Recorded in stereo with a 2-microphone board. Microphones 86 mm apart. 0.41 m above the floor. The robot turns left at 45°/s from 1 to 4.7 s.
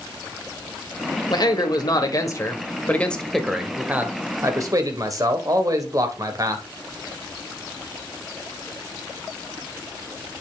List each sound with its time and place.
1.3 s a man speaking: 95° left, 1.7 m; by 6.6 s 55° right, 1.7 m